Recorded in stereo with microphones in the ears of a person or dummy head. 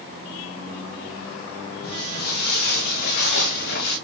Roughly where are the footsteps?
Left.